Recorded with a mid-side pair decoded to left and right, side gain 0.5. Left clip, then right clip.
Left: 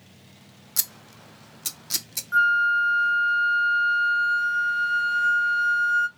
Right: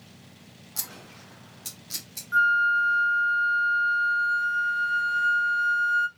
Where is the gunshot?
No gunshot in this recording.